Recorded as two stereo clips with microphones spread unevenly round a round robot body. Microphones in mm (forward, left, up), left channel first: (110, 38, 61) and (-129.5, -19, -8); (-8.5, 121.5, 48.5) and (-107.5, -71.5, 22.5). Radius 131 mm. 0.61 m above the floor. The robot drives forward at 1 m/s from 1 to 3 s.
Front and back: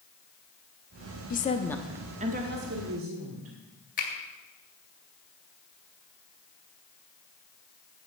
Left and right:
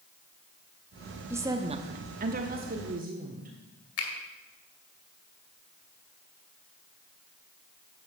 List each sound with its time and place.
1.3 s a woman speaking: 45° right, 0.9 m; by 3.5 s 160° right, 1.5 m
4.0 s a finger snap: 75° left, 2.5 m